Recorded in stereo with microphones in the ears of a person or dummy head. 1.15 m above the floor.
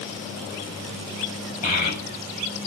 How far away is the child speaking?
About 4.5 m.